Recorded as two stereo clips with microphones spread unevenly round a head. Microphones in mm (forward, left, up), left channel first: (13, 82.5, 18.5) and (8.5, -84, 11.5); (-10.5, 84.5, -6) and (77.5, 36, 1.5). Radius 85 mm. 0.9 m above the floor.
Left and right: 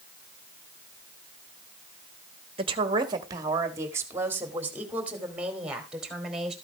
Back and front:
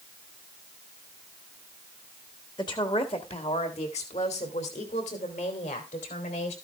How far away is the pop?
No pop in this recording.